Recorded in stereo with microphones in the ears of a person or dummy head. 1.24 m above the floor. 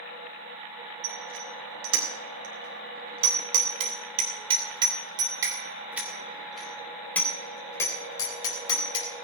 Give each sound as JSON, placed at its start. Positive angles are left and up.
{"t": 1.0, "sound": "a bicycle bell", "side_deg": -70, "distance_m": 4.5}